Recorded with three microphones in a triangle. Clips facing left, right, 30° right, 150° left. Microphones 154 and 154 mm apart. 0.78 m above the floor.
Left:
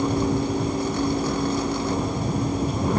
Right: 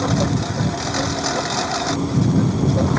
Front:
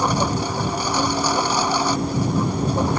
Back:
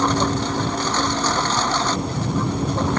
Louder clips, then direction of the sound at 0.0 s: Right 2 dB, back 1 dB; 110° right.